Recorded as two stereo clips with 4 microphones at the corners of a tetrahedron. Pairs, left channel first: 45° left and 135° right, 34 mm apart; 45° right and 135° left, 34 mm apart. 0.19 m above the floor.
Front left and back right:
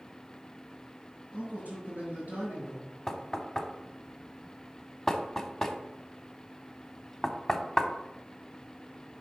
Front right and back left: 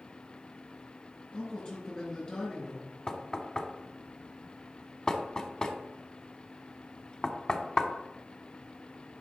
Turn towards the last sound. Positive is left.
turn(degrees=-25)